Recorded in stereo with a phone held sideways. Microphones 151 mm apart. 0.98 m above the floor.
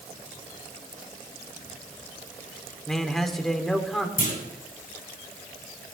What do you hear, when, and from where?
2.9 s a man speaking: centre (ahead or behind), 2 m
4.2 s a clunk: 70° left (ahead or behind), 5 m